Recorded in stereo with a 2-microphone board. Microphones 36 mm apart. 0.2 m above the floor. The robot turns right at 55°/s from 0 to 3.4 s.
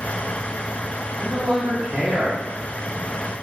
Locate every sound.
1.2 s a man speaking: 130° right, 1.9 m; by 2.4 s 65° right, 1.9 m